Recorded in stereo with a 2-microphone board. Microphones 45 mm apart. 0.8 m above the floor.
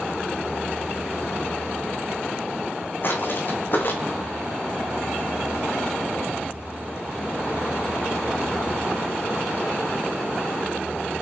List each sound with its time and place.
3.0 s footsteps: 45° left (ahead or behind), 3 m